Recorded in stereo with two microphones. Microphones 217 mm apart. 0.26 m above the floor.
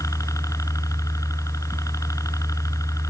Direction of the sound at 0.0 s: 15° left (ahead or behind).